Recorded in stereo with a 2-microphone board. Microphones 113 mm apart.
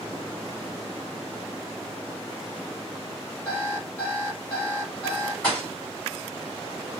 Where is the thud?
10° left (ahead or behind), 4.5 m.